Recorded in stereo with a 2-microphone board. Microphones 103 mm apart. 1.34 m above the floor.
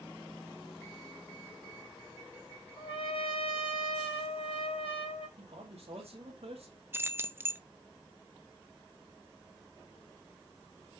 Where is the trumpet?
65° left (ahead or behind), 3.5 m.